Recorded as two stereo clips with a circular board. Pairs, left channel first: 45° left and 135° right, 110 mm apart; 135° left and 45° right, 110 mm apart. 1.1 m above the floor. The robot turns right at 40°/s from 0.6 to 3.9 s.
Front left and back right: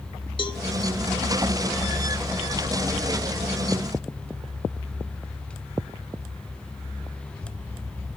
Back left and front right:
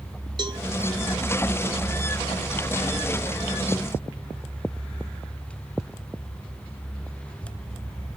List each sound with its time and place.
0.4 s a cowbell: straight ahead, 1.2 m